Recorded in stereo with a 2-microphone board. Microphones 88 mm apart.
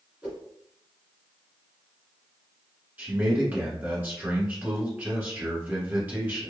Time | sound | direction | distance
0.2 | a whoosh | 15° right (ahead or behind) | 1.4 m
3.0 | a man speaking | 20° right (ahead or behind) | 1.5 m